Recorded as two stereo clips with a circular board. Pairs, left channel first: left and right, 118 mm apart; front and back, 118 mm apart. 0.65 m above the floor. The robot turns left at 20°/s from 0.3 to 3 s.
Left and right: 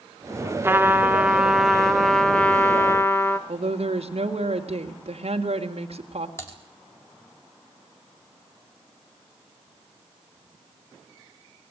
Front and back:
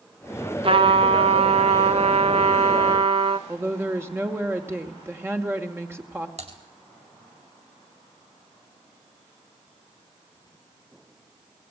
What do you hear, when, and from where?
0.6 s a trumpet: 155° right, 1.4 m; by 3.4 s 160° left, 1.4 m
3.5 s a woman speaking: 110° right, 2.5 m
6.4 s typing on a keyboard: 160° left, 4 m